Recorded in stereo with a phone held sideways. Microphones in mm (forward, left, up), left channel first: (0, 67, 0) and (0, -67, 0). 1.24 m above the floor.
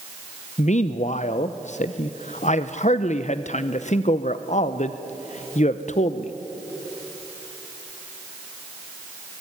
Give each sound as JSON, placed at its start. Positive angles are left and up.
{"t": 0.6, "sound": "a man speaking", "side_deg": 60, "distance_m": 0.7}